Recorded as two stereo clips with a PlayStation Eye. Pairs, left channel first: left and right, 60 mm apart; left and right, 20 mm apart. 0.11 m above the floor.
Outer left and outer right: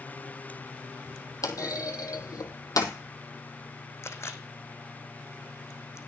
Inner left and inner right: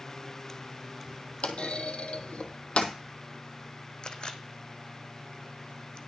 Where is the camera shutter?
45° left (ahead or behind), 0.9 m.